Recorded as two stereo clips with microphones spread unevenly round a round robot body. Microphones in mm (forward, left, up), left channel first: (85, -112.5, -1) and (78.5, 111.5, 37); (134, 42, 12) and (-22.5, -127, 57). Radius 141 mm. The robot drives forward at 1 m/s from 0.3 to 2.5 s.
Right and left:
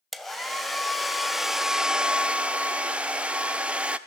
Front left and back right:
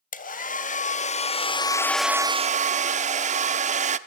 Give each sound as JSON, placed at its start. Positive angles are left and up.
{"t": 0.1, "sound": "a hair dryer", "azimuth_deg": 0, "distance_m": 2.0}